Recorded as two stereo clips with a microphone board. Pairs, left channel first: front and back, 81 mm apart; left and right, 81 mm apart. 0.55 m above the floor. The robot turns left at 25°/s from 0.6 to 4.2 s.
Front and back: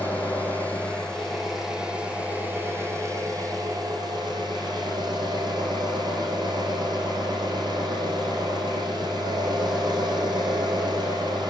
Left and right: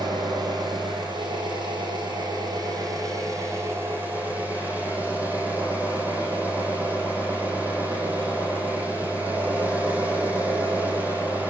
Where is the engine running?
70° right, 9 m; by 11.5 s 160° right, 9 m.